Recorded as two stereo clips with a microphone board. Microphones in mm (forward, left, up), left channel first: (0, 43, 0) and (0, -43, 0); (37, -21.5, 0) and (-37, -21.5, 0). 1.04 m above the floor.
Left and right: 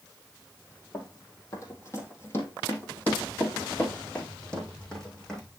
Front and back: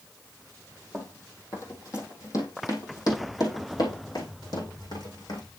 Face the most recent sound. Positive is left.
turn(degrees=10)